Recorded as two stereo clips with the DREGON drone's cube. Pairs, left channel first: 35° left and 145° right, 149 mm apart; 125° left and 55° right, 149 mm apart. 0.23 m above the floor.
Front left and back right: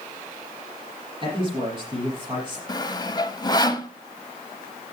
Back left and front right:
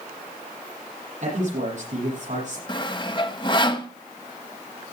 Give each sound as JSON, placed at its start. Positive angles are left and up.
{"t": 1.2, "sound": "a man speaking", "azimuth_deg": -90, "distance_m": 8.0}
{"t": 2.7, "sound": "sawing", "azimuth_deg": 85, "distance_m": 0.9}